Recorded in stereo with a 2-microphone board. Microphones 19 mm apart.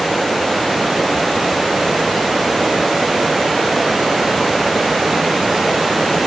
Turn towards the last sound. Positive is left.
No sound to turn to.